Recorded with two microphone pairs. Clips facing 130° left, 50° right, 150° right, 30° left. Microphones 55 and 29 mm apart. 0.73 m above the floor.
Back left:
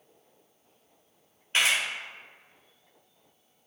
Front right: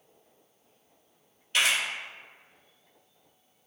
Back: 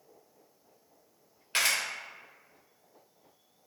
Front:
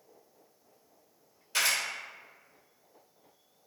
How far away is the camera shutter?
About 1.6 m.